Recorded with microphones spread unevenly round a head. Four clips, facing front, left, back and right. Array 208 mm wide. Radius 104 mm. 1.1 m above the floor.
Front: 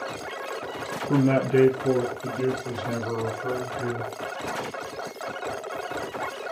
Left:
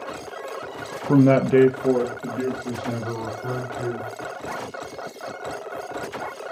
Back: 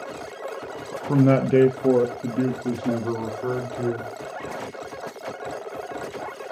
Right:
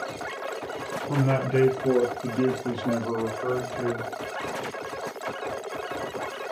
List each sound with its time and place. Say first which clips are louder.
1.1 s a man speaking: left 9 dB, back 3 dB; 100° left, 0.8 m; by 4.1 s 155° right, 3.5 m